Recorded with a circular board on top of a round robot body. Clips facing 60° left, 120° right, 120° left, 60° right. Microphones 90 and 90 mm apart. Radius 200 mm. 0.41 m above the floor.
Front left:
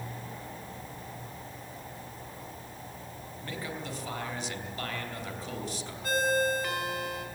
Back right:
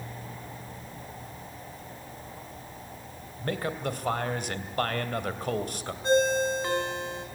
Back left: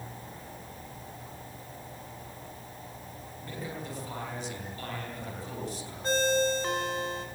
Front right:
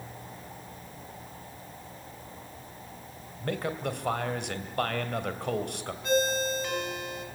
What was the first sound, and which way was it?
A man speaking, 80° right.